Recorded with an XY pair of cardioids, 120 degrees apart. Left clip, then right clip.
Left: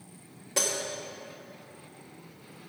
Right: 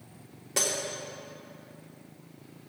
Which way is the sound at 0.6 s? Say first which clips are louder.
Even; 10° right.